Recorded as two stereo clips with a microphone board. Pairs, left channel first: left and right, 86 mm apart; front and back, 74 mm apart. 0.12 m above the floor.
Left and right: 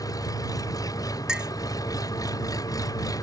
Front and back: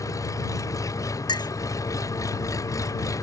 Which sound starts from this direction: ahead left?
An engine running, at 0.0 s.